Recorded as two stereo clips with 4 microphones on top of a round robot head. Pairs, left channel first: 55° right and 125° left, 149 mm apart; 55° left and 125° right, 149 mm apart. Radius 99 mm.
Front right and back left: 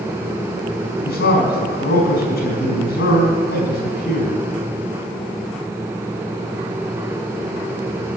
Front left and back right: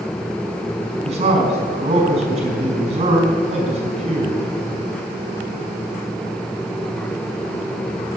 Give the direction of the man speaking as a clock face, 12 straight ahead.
2 o'clock.